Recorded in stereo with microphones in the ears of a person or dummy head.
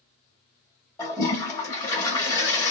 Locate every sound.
1.0 s a toilet flushing: 20° left (ahead or behind), 1.2 m